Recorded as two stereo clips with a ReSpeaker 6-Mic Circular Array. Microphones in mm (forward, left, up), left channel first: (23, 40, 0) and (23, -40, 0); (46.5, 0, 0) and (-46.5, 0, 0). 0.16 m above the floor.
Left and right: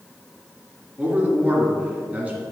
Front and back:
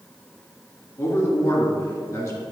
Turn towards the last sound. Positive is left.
turn(degrees=-30)